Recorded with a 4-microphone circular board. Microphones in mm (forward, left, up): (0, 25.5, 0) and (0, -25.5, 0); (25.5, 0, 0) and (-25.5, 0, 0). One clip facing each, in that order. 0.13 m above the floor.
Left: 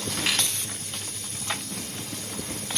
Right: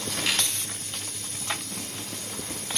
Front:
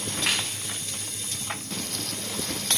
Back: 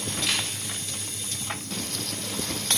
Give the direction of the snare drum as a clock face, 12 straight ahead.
11 o'clock.